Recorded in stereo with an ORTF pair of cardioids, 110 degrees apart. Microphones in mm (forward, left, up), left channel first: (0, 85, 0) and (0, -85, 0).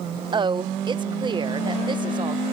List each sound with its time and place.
0.3 s a woman speaking: 25° right